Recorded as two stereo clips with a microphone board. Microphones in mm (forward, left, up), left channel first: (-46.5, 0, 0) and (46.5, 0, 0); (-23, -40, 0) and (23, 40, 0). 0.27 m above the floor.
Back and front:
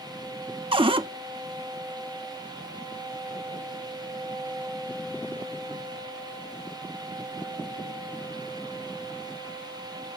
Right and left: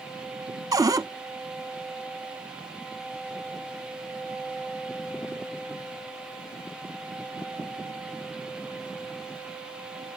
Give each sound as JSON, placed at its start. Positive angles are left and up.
{"t": 0.7, "sound": "a cupboard door", "azimuth_deg": 15, "distance_m": 0.6}